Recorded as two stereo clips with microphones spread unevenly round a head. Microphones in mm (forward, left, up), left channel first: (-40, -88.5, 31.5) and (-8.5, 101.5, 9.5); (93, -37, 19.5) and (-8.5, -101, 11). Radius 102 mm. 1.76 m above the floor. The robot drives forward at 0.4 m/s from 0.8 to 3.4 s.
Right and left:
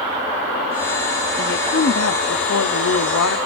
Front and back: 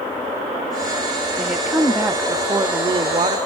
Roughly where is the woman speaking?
Ahead right.